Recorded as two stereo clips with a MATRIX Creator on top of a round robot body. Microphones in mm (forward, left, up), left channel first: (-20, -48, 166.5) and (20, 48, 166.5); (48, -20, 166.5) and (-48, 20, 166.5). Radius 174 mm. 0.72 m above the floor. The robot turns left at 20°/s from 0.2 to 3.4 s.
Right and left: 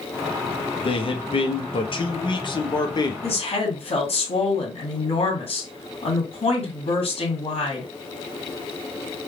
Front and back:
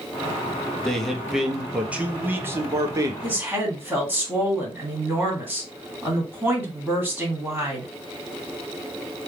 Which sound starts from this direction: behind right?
A woman speaking, at 3.2 s.